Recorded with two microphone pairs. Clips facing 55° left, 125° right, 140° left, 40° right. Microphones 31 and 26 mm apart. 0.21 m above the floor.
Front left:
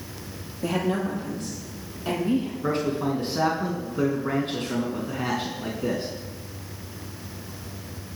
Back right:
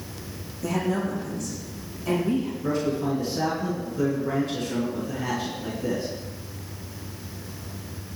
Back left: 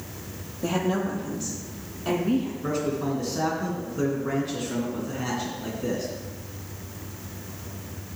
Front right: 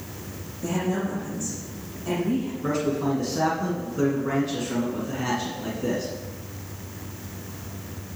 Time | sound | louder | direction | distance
0.6 | a woman speaking | front left 1 dB, back left 1 dB | 100° left | 6 m
2.6 | a man speaking | back right 1 dB, front right 2 dB | 45° left | 2.5 m